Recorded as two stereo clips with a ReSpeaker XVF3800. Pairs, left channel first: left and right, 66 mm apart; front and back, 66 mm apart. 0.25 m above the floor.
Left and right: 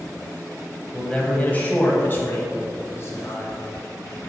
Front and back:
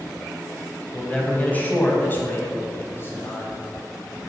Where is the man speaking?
35° left, 1.2 m; by 3.5 s 50° left, 2 m.